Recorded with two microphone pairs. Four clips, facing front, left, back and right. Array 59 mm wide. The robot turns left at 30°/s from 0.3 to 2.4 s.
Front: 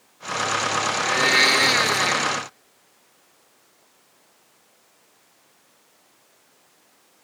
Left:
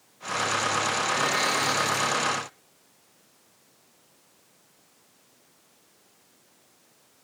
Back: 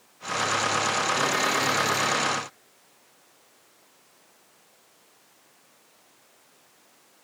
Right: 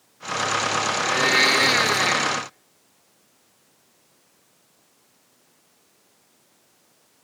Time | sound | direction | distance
0.9 | a blender | 20° right | 1.2 m